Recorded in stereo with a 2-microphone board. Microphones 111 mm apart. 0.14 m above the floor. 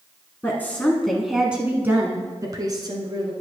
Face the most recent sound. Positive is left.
turn(degrees=-45)  # may be behind; listen again after turning